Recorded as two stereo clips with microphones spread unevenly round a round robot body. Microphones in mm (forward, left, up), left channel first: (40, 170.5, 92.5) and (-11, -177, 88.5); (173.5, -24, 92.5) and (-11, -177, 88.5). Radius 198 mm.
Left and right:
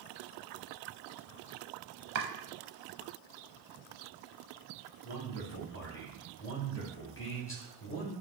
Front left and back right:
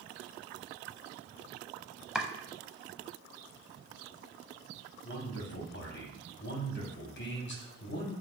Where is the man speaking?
40° left, 1.2 m.